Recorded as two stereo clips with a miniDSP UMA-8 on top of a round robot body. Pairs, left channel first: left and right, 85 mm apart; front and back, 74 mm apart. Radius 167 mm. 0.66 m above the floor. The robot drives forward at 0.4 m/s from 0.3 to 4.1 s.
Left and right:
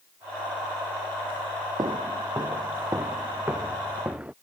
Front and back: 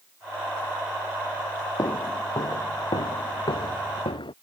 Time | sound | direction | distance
1.8 | footsteps | 45° right | ?